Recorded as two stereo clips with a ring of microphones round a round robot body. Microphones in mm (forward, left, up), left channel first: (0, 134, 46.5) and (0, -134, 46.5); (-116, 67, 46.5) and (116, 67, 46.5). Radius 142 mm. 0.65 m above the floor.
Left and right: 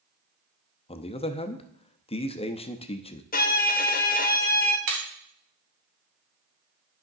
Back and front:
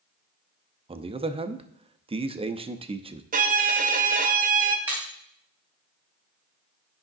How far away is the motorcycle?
No motorcycle in this recording.